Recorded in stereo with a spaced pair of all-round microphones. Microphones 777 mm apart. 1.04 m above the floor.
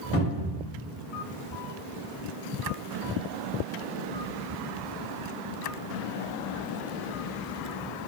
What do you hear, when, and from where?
0.1 s a cupboard door: 20° left (ahead or behind), 0.8 m